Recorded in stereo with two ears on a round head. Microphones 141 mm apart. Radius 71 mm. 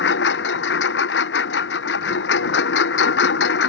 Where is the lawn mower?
90° left.